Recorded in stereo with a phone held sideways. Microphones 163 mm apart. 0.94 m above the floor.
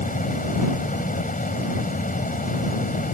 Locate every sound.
0.0 s a fan: 60° left (ahead or behind)